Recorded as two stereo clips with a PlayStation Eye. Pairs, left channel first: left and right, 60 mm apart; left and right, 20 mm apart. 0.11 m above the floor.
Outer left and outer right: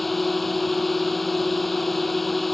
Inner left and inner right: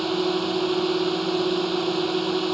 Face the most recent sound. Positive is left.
turn(degrees=5)  # may be behind; listen again after turning